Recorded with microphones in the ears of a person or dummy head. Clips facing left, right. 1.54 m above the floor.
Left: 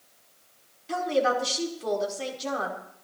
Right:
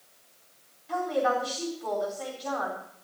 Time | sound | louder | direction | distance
0.9 | a woman speaking | left 2 dB | 40° left (ahead or behind) | 4.5 m